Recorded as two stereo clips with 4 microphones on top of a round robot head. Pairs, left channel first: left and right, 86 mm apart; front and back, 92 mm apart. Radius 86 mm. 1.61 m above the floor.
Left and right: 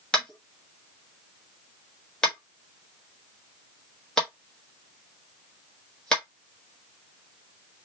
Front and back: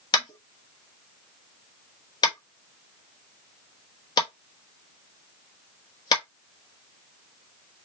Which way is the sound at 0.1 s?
5° left.